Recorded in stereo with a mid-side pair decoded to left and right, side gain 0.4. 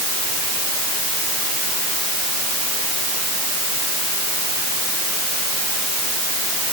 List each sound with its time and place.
Only background noise.